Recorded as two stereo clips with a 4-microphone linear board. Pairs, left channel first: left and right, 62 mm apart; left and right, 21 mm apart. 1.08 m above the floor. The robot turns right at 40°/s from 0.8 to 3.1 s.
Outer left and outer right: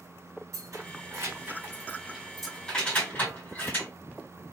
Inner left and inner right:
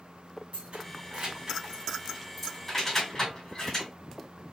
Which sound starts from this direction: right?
Keys jangling, at 0.5 s.